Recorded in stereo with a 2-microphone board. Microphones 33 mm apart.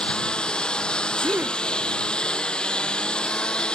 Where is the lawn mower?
25° left (ahead or behind); by 3.8 s 30° left (ahead or behind).